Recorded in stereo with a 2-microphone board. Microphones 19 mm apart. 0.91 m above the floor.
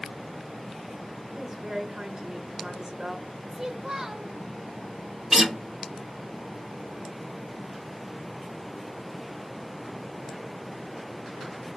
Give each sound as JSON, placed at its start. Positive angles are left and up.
{"t": 1.4, "sound": "a woman speaking", "side_deg": -30, "distance_m": 0.9}
{"t": 3.5, "sound": "a child speaking", "side_deg": -30, "distance_m": 0.5}
{"t": 5.3, "sound": "a guitar", "side_deg": -25, "distance_m": 0.6}